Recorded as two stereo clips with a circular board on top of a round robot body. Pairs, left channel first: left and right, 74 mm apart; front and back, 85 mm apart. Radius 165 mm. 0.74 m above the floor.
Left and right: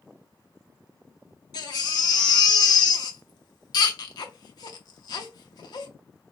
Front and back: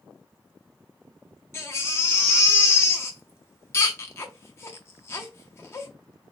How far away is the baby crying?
About 0.5 m.